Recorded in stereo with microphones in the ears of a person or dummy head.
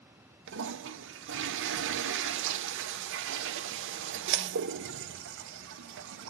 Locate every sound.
0.5 s a toilet flushing: 60° right (ahead or behind), 0.7 m